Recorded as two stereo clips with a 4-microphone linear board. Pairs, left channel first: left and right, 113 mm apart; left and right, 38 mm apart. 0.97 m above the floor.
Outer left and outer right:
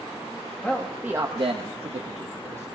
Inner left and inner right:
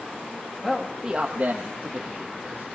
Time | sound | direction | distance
0.6 | a man speaking | 10° left (ahead or behind) | 1.3 m